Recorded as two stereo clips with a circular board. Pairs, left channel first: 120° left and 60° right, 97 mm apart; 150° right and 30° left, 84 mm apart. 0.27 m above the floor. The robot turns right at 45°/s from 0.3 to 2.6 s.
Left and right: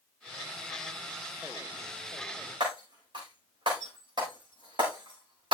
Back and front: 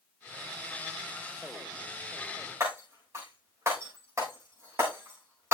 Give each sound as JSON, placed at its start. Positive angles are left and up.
{"t": 2.6, "sound": "breaking glass", "azimuth_deg": -25, "distance_m": 7.0}